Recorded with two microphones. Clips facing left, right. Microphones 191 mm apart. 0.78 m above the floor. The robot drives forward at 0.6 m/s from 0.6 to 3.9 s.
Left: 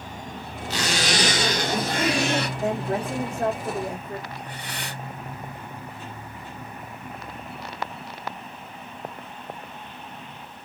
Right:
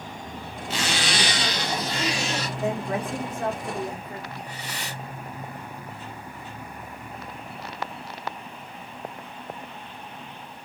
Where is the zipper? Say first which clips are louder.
Left 2 dB; 40° left (ahead or behind), 2 m; by 2.5 s 60° left (ahead or behind), 1.6 m.